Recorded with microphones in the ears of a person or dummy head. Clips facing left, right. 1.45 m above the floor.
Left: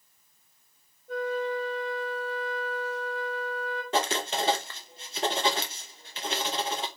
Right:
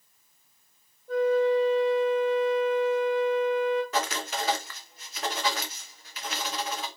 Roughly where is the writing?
Left.